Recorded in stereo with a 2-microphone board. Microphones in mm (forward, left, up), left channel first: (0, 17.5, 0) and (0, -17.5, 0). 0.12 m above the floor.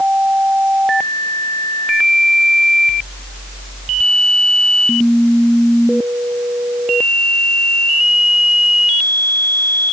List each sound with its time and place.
Only background noise.